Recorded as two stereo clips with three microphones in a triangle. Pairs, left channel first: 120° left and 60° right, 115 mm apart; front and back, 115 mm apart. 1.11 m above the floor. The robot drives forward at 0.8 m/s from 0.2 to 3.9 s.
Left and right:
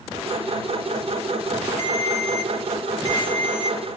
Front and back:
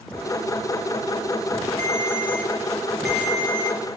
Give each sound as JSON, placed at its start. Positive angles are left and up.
{"t": 1.8, "sound": "a ringtone", "azimuth_deg": -65, "distance_m": 2.0}